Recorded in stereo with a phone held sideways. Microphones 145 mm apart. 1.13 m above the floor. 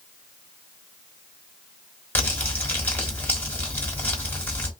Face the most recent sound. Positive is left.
turn(degrees=10)  # may be behind; listen again after turning